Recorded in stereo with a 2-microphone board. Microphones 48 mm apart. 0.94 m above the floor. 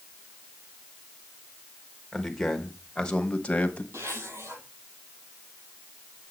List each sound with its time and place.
2.1 s a man speaking: 5° left (ahead or behind), 1.5 m; by 3.8 s 30° left (ahead or behind), 1.1 m
3.9 s a zipper: 80° right, 7 m